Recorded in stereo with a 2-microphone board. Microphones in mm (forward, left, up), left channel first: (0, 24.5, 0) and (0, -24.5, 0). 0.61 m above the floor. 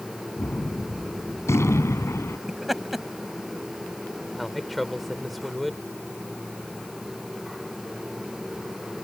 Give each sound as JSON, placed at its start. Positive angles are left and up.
{"t": 0.4, "sound": "a gunshot", "side_deg": 70}
{"t": 2.5, "sound": "laughter", "side_deg": -5}
{"t": 4.3, "sound": "a man speaking", "side_deg": 0}